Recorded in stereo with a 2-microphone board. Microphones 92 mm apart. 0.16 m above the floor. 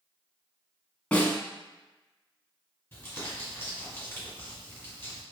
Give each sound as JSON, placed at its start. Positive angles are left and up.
{"t": 1.1, "sound": "a snare drum", "side_deg": 15, "distance_m": 0.7}
{"t": 2.9, "sound": "crumpling", "side_deg": 20, "distance_m": 2.0}